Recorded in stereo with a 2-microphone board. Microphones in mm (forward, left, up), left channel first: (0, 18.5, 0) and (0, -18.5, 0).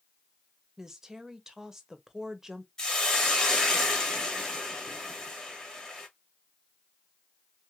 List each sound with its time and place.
0.8 s a woman speaking: 15° right (ahead or behind), 0.9 m
2.8 s a hiss: 20° left (ahead or behind), 1.8 m